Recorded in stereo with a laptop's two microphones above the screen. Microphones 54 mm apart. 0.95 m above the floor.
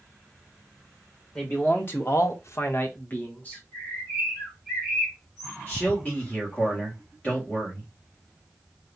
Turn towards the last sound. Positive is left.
turn(degrees=25)  # may be behind; listen again after turning